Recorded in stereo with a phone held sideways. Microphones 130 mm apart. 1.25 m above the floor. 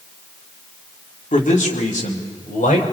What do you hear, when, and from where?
1.3 s a man speaking: 80° left, 2.5 m; by 2.9 s 85° left, 4.5 m